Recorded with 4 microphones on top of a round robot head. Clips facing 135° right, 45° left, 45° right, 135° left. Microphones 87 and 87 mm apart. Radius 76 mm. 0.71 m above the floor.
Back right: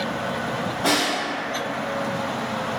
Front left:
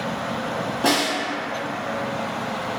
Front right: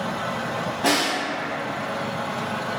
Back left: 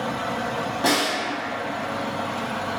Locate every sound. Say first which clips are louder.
0.8 s a snare drum: front left 1 dB, even; 65° left, 1.2 m